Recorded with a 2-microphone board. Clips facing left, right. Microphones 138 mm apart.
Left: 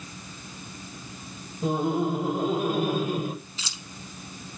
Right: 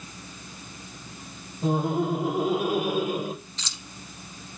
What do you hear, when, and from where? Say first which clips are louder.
1.6 s laughter: even; centre (ahead or behind), 5 m; by 3.4 s 20° right (ahead or behind), 3.5 m
3.6 s keys jangling: even; 5° left (ahead or behind), 1.1 m